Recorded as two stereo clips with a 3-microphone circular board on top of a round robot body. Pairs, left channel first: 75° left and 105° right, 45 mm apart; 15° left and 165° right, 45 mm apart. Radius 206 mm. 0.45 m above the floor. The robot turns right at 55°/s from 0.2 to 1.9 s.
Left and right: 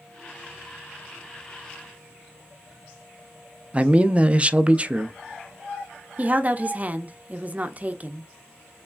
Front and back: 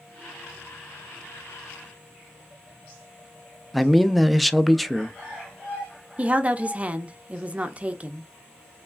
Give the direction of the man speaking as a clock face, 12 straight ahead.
2 o'clock.